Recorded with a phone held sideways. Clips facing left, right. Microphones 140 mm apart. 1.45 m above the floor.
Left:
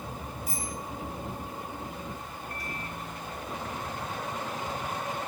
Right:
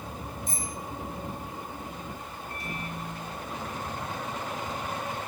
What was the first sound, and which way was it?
A bicycle bell, 10° left (ahead or behind).